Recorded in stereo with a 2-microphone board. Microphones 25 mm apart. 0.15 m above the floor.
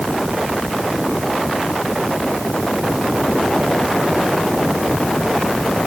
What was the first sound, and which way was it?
Only background noise.